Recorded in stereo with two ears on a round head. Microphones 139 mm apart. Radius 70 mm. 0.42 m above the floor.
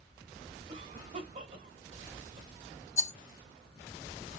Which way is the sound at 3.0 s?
20° left (ahead or behind).